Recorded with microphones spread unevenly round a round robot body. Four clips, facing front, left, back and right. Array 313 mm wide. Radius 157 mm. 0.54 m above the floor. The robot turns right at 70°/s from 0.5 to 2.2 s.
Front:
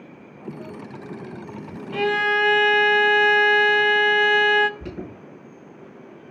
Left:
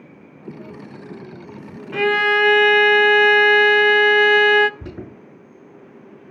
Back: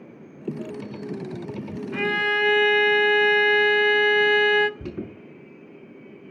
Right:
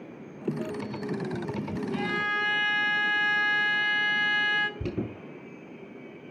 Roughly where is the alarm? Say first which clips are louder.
Right 2 dB, back 1 dB; behind right.